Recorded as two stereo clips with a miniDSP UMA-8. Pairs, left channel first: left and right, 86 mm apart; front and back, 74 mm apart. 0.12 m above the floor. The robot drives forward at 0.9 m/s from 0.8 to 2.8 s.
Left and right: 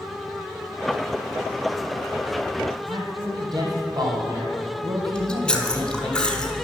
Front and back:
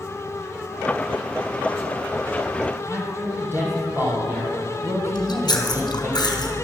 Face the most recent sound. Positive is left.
turn(degrees=15)